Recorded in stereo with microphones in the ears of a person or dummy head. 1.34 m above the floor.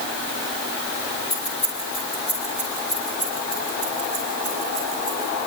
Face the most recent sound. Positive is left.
turn(degrees=0)  # may be behind; listen again after turning